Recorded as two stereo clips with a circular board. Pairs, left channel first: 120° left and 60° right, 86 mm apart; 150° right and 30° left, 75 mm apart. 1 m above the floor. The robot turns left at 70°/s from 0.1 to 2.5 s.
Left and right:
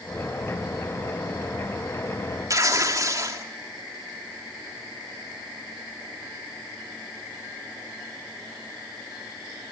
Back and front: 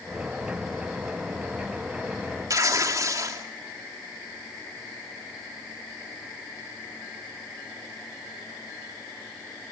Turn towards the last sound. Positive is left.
turn(degrees=-10)